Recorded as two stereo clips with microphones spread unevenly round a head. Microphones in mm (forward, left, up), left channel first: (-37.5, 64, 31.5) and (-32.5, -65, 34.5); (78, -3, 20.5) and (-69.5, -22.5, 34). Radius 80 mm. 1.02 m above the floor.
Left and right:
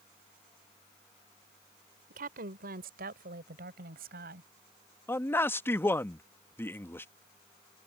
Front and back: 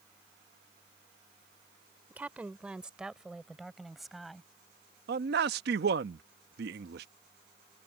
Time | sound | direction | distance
2.1 | a woman speaking | 95° right | ?
5.1 | a man speaking | 165° left | ?